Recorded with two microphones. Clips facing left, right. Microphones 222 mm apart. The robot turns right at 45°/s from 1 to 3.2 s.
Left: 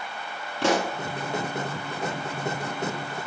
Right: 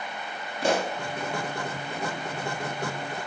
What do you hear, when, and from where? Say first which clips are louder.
0.6 s a pop: left 2 dB; 75° left (ahead or behind), 4 m